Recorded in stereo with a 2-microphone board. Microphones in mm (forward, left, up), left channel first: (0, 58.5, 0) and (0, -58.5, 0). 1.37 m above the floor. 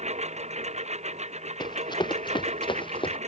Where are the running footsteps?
40° left (ahead or behind); by 3.2 s 45° left (ahead or behind).